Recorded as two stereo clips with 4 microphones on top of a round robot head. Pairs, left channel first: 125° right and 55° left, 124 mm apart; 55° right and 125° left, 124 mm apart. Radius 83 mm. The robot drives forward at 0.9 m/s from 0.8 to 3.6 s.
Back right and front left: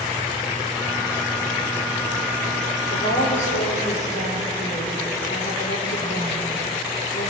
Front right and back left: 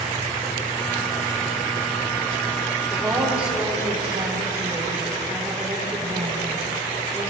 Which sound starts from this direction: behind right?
A woman speaking, at 2.9 s.